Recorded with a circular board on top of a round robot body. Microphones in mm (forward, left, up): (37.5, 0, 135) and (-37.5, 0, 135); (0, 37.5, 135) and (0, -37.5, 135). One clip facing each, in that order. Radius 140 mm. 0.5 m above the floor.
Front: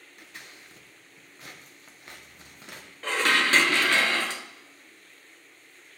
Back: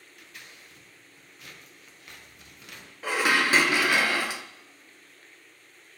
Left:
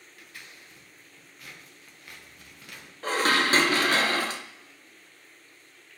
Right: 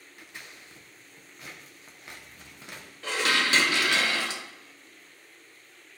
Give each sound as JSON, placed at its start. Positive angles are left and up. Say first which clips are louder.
{"t": 0.2, "sound": "scissors", "louder": "front 2 dB, right 2 dB", "azimuth_deg": -40, "distance_m": 1.4}
{"t": 3.0, "sound": "dishes clattering", "louder": "even, left 3 dB", "azimuth_deg": 105, "distance_m": 0.7}